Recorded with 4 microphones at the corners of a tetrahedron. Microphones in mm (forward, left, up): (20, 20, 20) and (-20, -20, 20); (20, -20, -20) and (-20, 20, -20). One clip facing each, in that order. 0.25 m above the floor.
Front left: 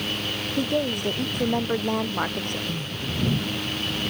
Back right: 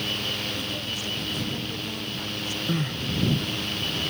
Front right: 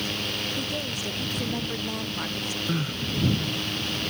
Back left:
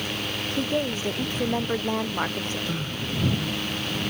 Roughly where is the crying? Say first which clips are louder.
Back right 4 dB, front right 2 dB; behind right.